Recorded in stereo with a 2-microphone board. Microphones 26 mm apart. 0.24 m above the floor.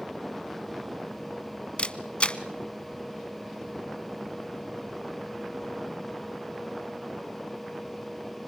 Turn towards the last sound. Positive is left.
turn(degrees=45)  # may be behind; listen again after turning